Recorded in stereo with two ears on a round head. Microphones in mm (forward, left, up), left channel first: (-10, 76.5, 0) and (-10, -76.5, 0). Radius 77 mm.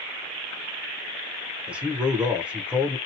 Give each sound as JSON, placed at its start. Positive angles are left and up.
{"t": 1.7, "sound": "a man speaking", "side_deg": -5, "distance_m": 0.9}